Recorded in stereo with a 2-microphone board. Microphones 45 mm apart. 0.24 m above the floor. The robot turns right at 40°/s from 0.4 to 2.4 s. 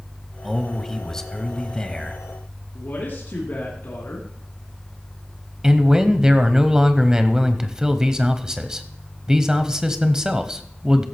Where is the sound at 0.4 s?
5° left (ahead or behind), 1.0 m; by 2.2 s 20° left (ahead or behind), 1.0 m.